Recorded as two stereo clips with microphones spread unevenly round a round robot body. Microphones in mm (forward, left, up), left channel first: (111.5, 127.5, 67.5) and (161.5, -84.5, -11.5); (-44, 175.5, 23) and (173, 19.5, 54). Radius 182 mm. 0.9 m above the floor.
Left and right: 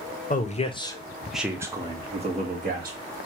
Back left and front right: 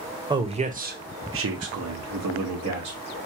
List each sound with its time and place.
0.3 s a man speaking: 40° left, 1.0 m; by 3.0 s 45° right, 1.5 m